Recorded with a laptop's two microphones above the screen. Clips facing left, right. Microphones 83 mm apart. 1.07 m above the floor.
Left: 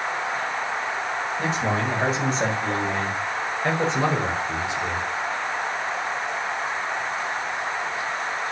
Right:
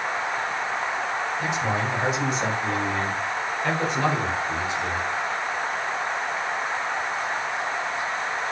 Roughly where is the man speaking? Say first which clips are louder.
Left 3 dB; left.